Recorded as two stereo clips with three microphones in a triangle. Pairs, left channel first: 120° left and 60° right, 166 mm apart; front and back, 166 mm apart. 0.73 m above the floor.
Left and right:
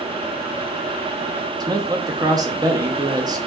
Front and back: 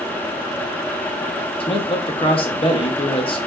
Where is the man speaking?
15° right, 0.8 m.